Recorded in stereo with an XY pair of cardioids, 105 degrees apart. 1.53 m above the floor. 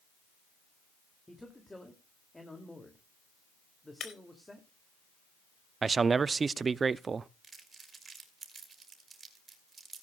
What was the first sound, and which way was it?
A man speaking, 10° left.